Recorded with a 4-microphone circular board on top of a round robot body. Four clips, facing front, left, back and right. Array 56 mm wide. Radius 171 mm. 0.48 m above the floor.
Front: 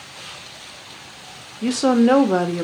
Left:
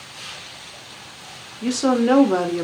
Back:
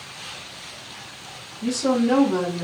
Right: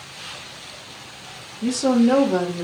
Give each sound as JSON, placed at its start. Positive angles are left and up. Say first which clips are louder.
{"t": 1.6, "sound": "a woman speaking", "louder": "right 1 dB, front 5 dB", "azimuth_deg": 15, "distance_m": 1.5}